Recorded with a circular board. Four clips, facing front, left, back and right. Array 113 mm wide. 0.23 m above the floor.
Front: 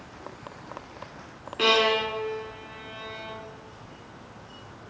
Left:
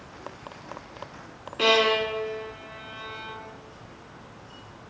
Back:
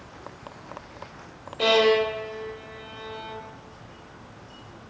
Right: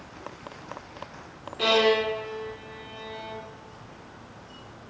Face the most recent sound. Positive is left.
turn(degrees=35)